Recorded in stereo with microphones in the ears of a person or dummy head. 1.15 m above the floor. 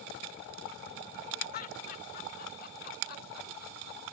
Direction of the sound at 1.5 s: 50° left (ahead or behind).